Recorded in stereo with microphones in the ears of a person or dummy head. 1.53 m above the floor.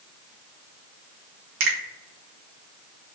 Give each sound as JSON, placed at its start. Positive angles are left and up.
{"t": 1.6, "sound": "a finger snap", "side_deg": -55, "distance_m": 1.1}